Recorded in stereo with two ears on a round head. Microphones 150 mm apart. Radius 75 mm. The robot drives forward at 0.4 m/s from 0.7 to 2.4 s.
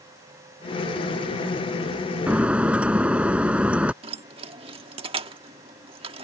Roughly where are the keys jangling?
Right.